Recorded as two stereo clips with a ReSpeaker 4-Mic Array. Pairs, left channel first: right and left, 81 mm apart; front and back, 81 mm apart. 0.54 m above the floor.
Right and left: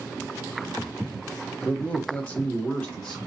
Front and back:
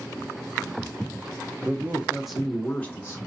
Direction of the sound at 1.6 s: 150° right.